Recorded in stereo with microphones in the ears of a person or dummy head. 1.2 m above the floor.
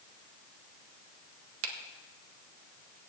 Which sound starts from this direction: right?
A finger snap, at 1.6 s.